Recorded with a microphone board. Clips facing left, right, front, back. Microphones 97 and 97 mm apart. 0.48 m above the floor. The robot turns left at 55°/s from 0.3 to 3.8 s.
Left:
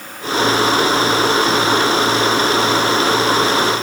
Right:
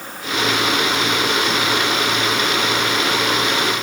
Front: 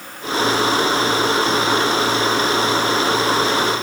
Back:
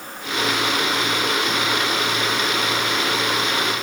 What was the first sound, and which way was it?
Only background noise.